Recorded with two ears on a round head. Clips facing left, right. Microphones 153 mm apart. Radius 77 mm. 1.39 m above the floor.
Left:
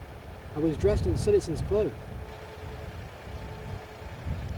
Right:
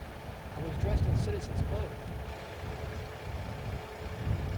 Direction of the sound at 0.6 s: 80° left.